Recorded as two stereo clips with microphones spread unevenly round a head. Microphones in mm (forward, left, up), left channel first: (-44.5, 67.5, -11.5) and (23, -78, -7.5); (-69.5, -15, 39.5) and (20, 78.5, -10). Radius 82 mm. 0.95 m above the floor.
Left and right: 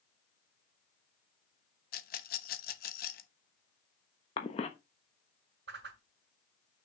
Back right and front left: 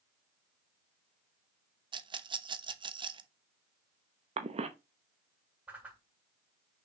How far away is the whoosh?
About 1.3 m.